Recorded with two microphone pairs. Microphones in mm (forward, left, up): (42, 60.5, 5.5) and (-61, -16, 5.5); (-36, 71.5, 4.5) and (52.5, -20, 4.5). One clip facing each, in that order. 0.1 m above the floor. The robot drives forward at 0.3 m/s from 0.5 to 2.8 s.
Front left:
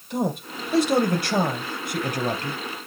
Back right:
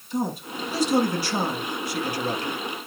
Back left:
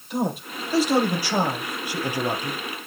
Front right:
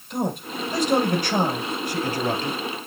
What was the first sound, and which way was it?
A man speaking, 50° left.